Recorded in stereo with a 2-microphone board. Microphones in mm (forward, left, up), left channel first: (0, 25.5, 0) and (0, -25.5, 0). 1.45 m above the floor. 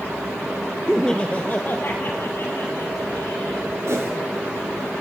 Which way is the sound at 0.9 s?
5° right (ahead or behind).